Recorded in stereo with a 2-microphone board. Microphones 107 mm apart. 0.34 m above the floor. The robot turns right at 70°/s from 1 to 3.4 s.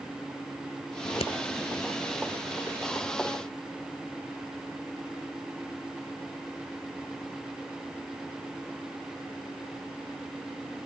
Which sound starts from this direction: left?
Scissors, at 1.0 s.